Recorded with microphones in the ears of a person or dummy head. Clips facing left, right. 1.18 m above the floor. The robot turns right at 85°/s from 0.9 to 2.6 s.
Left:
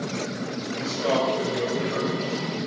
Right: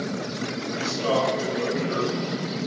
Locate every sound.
0.8 s a man speaking: 15° right, 1.9 m; by 2.6 s 130° left, 1.9 m